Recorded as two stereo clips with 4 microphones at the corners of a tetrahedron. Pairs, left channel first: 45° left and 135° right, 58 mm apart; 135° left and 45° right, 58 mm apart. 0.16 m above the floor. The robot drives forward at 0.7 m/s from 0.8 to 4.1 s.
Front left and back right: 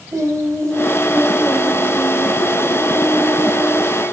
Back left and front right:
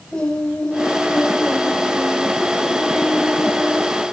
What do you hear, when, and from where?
0.1 s singing: 150° right, 8 m; by 4.0 s 155° right, 10 m